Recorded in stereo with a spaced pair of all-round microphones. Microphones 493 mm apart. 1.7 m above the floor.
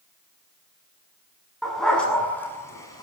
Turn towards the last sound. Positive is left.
turn(degrees=5)  # may be behind; listen again after turning